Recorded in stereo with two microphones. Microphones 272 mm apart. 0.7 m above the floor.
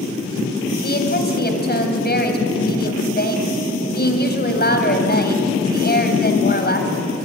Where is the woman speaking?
35° left (ahead or behind), 3.5 m.